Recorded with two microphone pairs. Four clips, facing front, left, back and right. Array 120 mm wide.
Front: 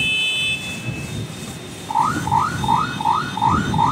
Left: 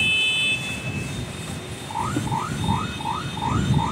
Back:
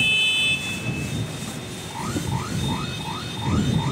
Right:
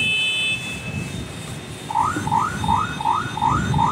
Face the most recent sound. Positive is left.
turn(degrees=-30)